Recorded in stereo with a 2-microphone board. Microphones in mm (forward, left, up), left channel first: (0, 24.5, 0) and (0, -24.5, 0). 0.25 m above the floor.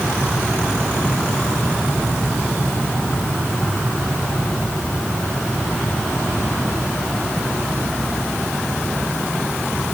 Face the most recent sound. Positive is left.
No sound to turn to.